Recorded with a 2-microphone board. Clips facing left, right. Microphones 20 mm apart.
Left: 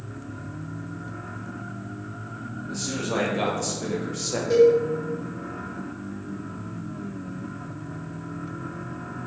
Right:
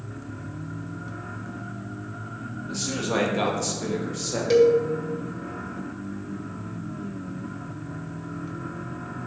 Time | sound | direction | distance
2.7 | a man speaking | 25° right (ahead or behind) | 1.2 m
4.5 | a cowbell | 50° right (ahead or behind) | 0.7 m